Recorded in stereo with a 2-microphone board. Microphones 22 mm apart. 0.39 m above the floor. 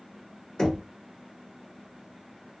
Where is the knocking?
25° left (ahead or behind), 0.9 m.